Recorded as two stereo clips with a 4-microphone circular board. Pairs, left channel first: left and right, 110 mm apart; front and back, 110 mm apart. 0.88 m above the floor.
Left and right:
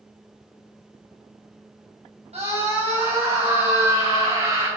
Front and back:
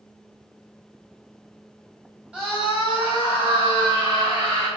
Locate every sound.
2.3 s a scream: 100° right, 4.5 m; by 4.7 s 120° right, 6.5 m